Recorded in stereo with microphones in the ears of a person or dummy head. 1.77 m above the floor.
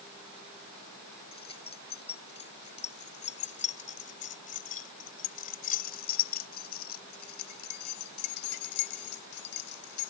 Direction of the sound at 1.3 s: 25° left (ahead or behind).